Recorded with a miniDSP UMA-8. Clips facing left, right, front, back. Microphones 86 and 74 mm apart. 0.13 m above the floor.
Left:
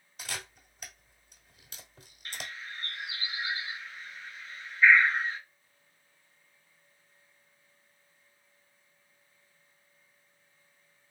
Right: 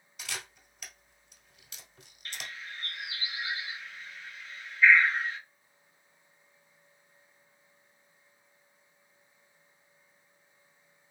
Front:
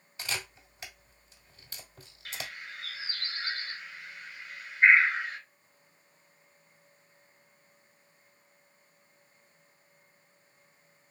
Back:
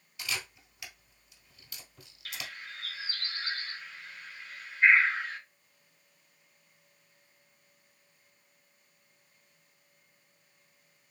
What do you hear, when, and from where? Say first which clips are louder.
0.2 s a camera shutter: left 1 dB, front 1 dB; 50° left, 1.3 m
2.2 s a bird: left 1 dB, front 1 dB; 50° left, 1.8 m